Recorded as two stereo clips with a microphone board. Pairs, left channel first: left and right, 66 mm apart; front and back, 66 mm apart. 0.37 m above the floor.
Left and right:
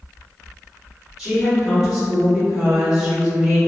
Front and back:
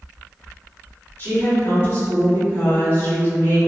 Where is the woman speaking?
5° right, 1.7 m.